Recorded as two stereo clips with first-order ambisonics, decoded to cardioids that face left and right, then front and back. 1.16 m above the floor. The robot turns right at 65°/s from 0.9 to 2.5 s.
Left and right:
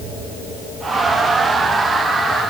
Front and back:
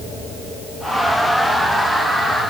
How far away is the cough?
I don't hear a cough.